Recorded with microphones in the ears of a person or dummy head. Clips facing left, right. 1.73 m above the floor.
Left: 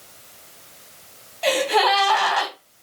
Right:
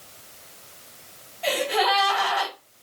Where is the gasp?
70° left (ahead or behind), 1.4 m.